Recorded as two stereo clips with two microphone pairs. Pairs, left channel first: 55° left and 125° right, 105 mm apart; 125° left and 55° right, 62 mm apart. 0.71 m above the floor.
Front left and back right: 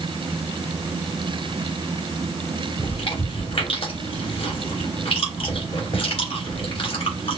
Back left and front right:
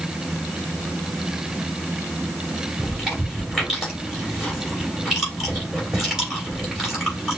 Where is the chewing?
25° left, 3 m.